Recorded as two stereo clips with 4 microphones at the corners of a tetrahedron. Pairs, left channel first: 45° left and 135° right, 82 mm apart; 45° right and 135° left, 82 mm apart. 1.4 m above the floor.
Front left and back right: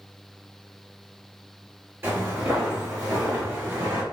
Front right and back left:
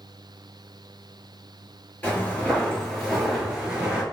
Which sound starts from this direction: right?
Footsteps, at 2.0 s.